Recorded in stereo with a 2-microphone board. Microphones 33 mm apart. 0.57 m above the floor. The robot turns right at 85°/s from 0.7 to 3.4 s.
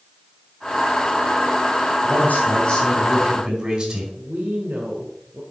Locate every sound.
2.0 s a man speaking: 100° left, 4.5 m; by 4.0 s 145° right, 4.5 m
4.2 s a woman speaking: 65° right (ahead or behind), 2 m